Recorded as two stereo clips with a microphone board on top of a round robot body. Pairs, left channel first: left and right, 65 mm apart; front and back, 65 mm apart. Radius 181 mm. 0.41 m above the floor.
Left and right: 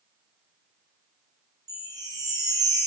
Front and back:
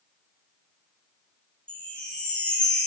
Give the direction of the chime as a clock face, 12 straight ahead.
2 o'clock.